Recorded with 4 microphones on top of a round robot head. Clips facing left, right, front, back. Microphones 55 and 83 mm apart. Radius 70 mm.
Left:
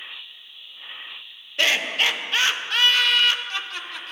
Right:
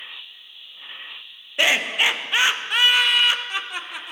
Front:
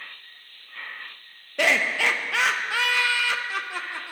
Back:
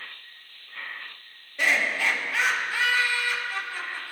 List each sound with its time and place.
1.6 s laughter: 15° right, 0.6 m